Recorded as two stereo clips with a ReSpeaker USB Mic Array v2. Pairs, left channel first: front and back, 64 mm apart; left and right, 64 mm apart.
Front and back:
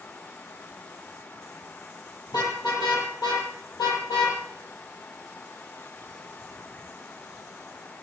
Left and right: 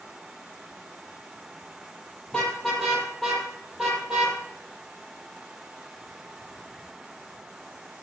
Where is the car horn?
10° left, 6 m; by 7.9 s 40° right, 8.5 m.